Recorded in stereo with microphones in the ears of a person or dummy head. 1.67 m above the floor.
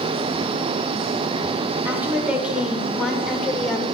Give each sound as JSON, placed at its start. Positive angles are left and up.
{"t": 1.9, "sound": "a woman speaking", "side_deg": -10, "distance_m": 7.5}